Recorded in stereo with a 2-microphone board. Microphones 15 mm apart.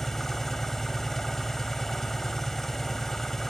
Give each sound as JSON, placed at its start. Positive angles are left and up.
{"t": 0.0, "sound": "an engine running", "side_deg": 25, "distance_m": 3.5}